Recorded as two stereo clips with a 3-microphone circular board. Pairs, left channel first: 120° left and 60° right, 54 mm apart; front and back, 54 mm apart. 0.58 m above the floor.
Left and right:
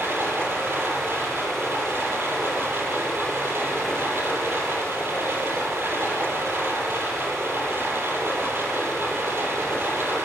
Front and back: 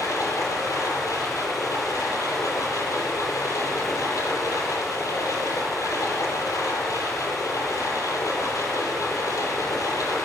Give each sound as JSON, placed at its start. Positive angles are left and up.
{"t": 0.0, "sound": "running water", "azimuth_deg": -15, "distance_m": 8.0}